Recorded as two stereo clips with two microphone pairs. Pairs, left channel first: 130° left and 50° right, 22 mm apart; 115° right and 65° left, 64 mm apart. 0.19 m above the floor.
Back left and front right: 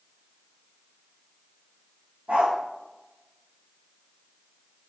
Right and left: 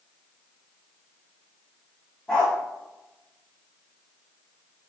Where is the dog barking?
35° right, 3.5 m.